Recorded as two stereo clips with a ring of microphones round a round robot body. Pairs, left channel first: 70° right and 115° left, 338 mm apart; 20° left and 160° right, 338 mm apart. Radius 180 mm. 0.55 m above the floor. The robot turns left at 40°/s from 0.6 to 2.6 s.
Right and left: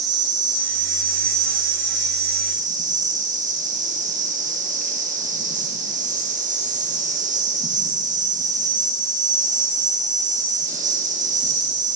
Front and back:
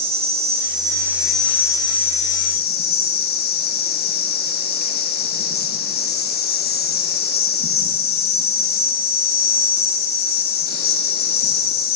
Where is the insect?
140° left, 0.8 m; by 12.0 s 60° left, 0.8 m.